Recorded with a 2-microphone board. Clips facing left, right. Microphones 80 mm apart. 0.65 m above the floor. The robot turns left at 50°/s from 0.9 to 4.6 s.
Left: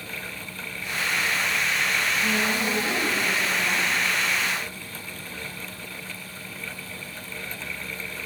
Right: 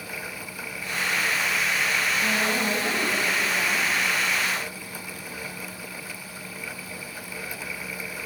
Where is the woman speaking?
65° right, 3.5 m; by 3.9 s 145° right, 3.5 m.